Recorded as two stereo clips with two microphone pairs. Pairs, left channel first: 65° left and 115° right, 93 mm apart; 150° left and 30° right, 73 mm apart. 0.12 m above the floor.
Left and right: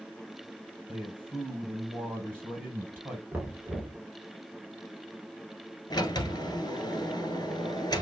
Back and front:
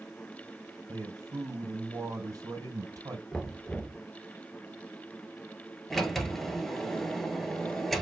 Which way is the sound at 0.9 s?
50° right.